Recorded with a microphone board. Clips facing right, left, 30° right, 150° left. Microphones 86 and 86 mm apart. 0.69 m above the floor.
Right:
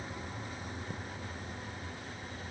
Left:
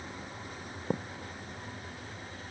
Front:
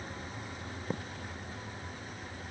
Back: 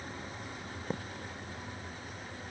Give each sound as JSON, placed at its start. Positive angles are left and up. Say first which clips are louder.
{"t": 0.9, "sound": "a thud", "louder": "left 9 dB, even", "azimuth_deg": 60}